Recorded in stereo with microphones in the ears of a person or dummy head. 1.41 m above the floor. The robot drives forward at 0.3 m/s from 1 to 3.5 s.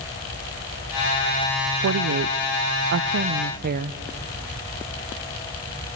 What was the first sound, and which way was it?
A woman speaking, 80° right.